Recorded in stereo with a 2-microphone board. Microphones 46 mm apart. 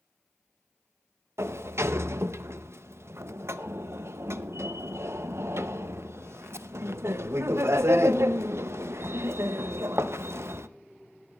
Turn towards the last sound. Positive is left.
turn(degrees=-70)  # may be behind; listen again after turning